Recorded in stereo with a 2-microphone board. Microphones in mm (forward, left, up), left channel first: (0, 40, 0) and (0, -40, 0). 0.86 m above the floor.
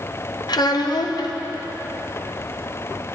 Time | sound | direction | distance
0.5 | a child speaking | 60° left (ahead or behind) | 0.7 m